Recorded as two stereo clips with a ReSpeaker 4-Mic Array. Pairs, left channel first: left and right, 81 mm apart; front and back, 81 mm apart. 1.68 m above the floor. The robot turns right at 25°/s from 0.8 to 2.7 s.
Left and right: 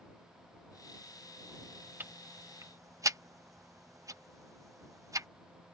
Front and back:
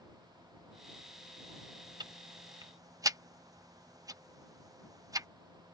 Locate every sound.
2.0 s ticking: 155° right; by 5.3 s 135° right